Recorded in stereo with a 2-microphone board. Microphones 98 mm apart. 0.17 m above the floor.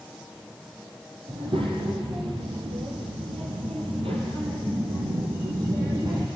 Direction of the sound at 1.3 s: 60° right (ahead or behind).